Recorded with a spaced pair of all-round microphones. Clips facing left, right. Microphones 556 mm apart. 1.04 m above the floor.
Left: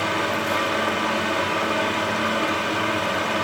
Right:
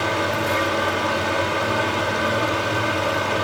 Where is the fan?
60° right (ahead or behind), 1.8 m.